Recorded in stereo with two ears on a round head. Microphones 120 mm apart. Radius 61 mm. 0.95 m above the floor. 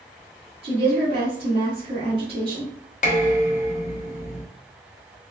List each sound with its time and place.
0.6 s a woman speaking: 45° right (ahead or behind), 1.3 m
3.0 s dishes clattering: 60° left (ahead or behind), 1.0 m